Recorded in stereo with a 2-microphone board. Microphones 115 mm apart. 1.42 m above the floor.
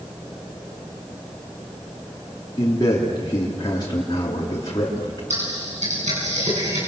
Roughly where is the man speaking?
Left.